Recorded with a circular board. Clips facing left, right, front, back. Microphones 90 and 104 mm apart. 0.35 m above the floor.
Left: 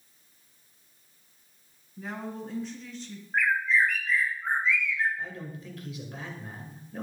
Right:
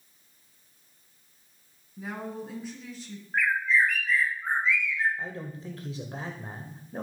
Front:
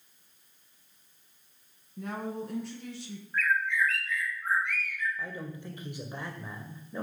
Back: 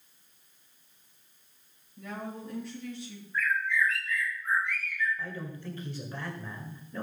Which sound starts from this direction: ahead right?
A man speaking, at 5.2 s.